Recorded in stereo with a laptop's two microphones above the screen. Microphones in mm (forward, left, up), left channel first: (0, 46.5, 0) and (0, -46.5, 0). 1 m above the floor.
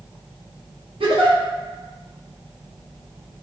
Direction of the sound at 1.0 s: 75° right (ahead or behind).